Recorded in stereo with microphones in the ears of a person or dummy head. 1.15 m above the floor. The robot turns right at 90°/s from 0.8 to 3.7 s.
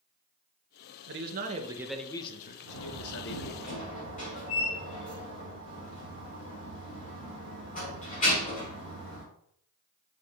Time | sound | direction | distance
1.1 | a man speaking | 85° right | 1.1 m
2.7 | a door slam | 45° left (ahead or behind) | 3.5 m